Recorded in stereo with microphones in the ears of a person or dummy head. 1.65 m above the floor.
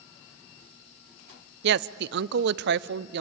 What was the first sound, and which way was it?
A woman speaking, 65° right (ahead or behind).